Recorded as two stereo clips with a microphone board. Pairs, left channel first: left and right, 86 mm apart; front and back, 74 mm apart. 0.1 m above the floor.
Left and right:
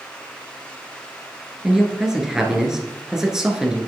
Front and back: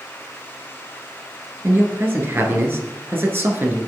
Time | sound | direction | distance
1.6 | a man speaking | 165° right | 1.2 m